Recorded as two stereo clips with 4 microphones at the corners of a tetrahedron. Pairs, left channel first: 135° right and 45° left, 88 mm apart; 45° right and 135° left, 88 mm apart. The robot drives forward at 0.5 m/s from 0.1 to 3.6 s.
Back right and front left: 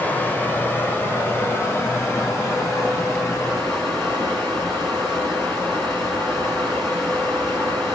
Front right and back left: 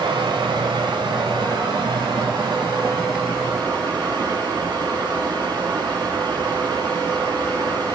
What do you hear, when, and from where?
0.0 s running water: 155° left, 1.5 m; by 7.9 s 170° left, 3 m